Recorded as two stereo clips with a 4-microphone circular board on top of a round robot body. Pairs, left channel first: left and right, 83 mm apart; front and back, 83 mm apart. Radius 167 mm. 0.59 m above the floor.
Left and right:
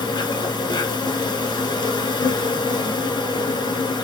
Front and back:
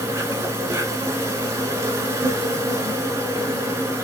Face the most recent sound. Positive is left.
turn(degrees=125)